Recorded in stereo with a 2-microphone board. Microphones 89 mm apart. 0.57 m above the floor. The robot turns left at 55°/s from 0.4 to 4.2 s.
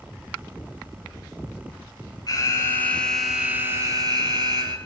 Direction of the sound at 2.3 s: 50° left.